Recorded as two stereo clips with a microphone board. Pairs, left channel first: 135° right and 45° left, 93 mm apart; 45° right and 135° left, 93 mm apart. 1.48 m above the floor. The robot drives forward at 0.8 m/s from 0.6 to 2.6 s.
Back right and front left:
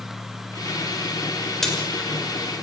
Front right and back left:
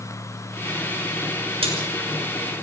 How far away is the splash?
About 6 m.